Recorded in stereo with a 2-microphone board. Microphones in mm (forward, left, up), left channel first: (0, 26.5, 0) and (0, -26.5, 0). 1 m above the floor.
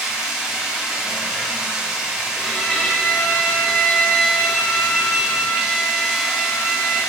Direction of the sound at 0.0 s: 10° right (ahead or behind).